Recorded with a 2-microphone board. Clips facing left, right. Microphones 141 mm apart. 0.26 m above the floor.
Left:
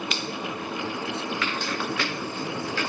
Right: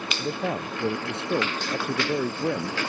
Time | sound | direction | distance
0.2 | a man speaking | 60° right (ahead or behind) | ?